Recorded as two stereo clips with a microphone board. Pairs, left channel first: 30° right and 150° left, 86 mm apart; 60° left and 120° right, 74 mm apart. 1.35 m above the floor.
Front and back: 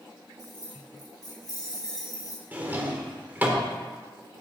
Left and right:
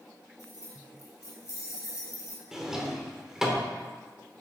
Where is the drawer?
170° left, 1.0 m.